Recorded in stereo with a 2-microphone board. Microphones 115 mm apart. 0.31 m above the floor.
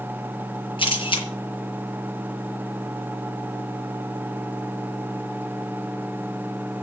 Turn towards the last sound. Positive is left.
turn(degrees=50)  # may be behind; listen again after turning